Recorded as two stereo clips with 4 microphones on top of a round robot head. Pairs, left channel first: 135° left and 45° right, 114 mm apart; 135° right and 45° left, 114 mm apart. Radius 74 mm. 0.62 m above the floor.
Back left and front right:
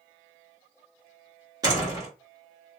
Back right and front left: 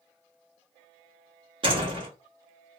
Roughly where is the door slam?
Ahead.